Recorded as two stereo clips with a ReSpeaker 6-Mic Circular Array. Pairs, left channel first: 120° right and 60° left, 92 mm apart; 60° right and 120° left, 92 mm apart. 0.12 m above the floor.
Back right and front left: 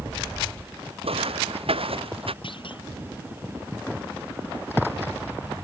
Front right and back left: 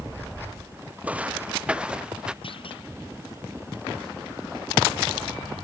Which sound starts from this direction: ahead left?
Footsteps, at 1.0 s.